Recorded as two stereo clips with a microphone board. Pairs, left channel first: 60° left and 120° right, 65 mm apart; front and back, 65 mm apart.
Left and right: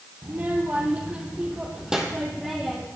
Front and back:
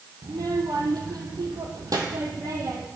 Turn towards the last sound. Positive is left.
turn(degrees=150)